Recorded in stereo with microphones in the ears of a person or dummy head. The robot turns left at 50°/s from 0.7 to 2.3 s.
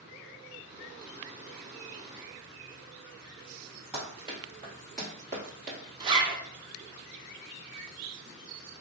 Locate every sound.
3.9 s running footsteps: 10° right (ahead or behind), 1.6 m; by 5.8 s 45° right (ahead or behind), 1.6 m
6.0 s a zipper: 20° right (ahead or behind), 0.6 m